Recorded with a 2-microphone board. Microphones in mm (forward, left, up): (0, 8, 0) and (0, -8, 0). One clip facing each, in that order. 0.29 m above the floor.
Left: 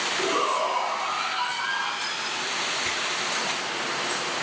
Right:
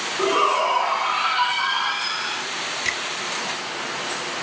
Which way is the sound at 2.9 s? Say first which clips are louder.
Right 3 dB; 60° right (ahead or behind).